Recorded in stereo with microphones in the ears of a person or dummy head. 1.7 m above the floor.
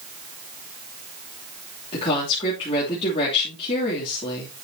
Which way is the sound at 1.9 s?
30° left (ahead or behind).